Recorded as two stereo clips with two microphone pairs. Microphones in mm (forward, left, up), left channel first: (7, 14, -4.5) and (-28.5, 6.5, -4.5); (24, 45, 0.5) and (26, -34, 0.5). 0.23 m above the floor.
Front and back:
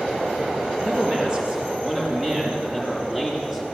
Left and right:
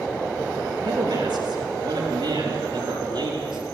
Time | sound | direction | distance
0.8 | a man speaking | 105° right | 4.5 m